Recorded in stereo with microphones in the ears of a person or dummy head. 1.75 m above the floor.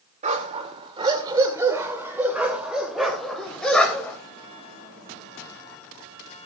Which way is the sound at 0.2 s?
30° right (ahead or behind).